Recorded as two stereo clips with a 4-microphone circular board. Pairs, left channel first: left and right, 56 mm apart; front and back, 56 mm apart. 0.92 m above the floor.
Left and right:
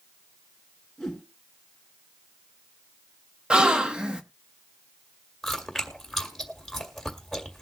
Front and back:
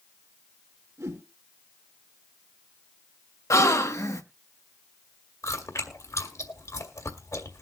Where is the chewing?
Straight ahead, 2.0 m.